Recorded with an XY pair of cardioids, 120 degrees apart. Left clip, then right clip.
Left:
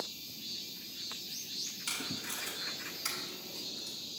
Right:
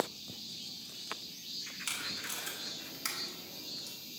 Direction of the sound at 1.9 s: 25° right.